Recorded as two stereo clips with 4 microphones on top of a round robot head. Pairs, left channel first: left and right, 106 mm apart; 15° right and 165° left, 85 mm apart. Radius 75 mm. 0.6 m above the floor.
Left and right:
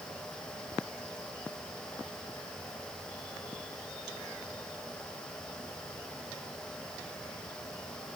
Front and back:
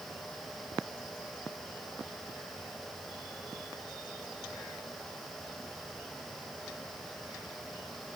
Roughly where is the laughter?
No laughter in this recording.